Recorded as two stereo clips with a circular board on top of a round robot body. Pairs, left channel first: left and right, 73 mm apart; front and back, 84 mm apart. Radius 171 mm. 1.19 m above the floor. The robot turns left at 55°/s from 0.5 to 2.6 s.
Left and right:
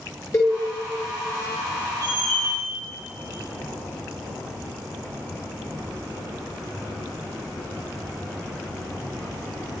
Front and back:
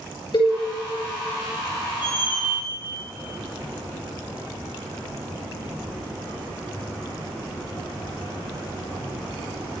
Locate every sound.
0.3 s a cowbell: 40° left, 4 m
2.0 s a squeak: 35° left, 1.7 m; by 2.5 s 10° left, 1.7 m